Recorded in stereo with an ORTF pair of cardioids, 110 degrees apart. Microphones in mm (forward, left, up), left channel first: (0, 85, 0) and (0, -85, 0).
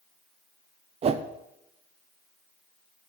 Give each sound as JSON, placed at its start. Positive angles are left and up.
{"t": 1.0, "sound": "a whoosh", "azimuth_deg": -40, "distance_m": 0.8}